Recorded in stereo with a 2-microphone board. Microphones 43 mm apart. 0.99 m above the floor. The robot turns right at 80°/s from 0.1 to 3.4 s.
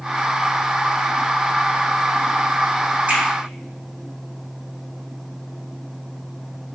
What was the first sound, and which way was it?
A finger snap, 35° right (ahead or behind).